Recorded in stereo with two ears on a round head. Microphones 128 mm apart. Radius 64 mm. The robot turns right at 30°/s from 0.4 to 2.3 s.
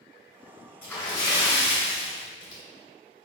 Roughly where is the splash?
Ahead.